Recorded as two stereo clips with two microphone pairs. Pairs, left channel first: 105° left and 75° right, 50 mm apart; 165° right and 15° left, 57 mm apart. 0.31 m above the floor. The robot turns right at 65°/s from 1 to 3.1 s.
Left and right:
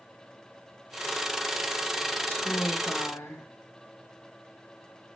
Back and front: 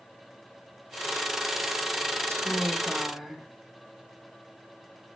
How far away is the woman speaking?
About 2.5 m.